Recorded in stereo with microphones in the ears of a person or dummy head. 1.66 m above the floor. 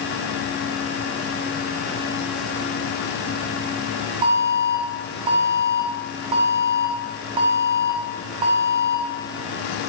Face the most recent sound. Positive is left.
turn(degrees=-30)  # may be behind; listen again after turning